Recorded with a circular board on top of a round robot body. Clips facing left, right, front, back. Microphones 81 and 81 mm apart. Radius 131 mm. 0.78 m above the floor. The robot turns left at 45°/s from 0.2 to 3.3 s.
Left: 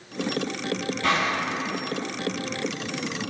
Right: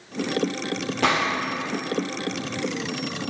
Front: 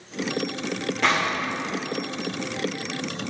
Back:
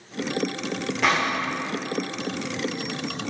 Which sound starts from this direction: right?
A gunshot, at 1.0 s.